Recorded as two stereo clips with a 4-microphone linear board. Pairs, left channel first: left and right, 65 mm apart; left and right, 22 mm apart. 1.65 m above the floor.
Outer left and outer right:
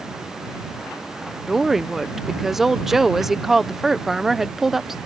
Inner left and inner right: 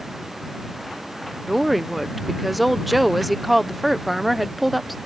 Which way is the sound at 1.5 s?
5° right (ahead or behind).